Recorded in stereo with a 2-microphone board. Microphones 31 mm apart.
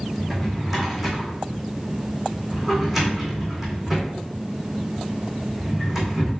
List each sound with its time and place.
0.2 s a drawer: 10° right (ahead or behind), 2 m